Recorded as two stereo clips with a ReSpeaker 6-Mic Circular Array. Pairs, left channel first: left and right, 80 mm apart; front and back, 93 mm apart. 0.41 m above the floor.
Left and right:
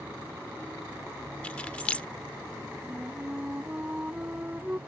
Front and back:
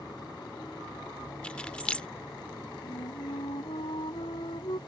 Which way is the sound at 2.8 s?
20° right.